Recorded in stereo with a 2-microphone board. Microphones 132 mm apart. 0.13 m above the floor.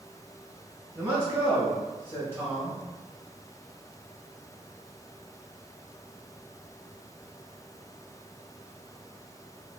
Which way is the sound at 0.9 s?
20° right (ahead or behind).